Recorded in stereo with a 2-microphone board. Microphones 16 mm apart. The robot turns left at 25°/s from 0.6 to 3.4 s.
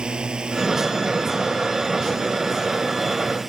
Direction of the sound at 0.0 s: 100° right.